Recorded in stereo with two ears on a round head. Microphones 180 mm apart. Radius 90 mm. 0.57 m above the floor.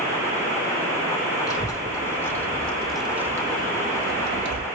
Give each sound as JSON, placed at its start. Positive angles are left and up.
{"t": 1.5, "sound": "a child speaking", "side_deg": 20, "distance_m": 1.9}